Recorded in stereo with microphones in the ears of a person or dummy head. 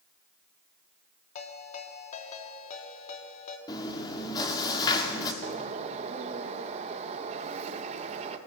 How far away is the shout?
I don't hear a shout.